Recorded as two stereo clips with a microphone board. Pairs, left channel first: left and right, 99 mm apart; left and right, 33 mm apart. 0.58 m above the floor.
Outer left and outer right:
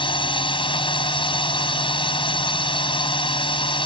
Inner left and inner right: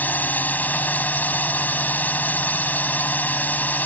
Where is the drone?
60° left (ahead or behind).